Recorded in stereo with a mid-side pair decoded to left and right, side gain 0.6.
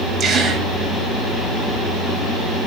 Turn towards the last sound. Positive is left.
turn(degrees=-35)